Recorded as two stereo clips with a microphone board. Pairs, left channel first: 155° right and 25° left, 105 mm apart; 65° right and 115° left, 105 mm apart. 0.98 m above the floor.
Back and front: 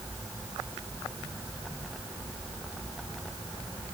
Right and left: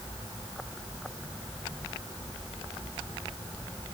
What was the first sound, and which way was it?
Only background noise.